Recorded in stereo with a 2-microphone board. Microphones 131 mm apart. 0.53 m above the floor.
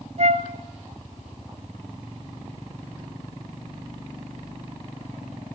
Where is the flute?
60° right (ahead or behind), 1.0 m.